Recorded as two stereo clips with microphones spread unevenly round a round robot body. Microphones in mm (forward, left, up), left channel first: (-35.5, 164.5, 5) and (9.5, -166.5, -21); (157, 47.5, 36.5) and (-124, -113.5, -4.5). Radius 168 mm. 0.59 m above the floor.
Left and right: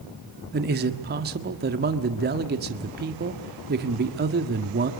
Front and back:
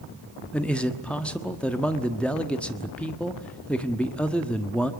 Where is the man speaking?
65° right, 1.4 m.